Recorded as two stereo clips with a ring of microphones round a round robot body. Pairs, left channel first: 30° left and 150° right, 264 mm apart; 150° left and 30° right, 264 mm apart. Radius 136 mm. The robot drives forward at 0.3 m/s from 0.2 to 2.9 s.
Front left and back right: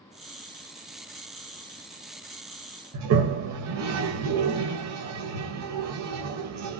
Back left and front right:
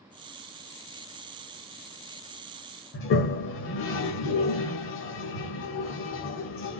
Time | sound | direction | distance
2.9 | a toilet flushing | 170° right | 0.9 m